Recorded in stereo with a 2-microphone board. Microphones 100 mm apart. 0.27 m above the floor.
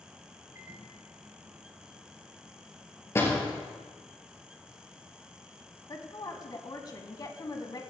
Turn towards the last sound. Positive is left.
turn(degrees=40)  # may be behind; listen again after turning